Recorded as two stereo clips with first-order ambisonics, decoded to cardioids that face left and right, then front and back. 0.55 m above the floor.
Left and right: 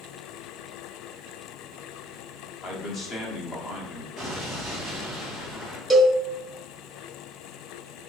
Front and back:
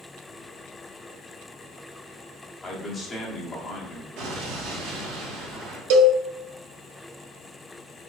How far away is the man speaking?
About 1.0 m.